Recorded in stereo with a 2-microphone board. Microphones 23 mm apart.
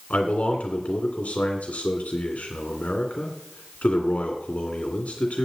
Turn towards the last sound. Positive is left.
turn(degrees=70)  # may be behind; listen again after turning